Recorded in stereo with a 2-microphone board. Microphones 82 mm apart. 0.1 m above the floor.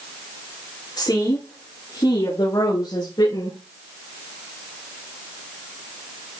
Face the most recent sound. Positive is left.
turn(degrees=70)  # may be behind; listen again after turning